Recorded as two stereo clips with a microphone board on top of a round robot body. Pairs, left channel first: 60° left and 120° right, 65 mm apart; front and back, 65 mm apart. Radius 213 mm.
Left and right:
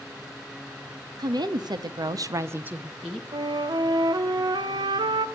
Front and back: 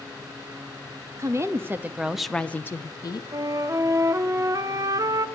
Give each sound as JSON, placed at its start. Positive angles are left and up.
{"t": 1.2, "sound": "a woman speaking", "azimuth_deg": -135, "distance_m": 1.7}
{"t": 3.3, "sound": "a flute", "azimuth_deg": -140, "distance_m": 0.8}